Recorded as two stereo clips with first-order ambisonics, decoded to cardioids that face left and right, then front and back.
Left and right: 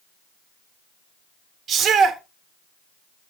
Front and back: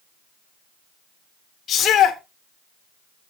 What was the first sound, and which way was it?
A shout, 45° right.